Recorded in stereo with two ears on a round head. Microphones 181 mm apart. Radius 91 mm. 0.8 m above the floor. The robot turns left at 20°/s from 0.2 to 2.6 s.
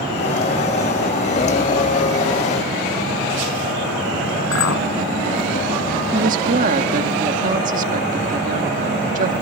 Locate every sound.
4.5 s a clink: 70° left (ahead or behind)
6.1 s a woman speaking: 40° right (ahead or behind)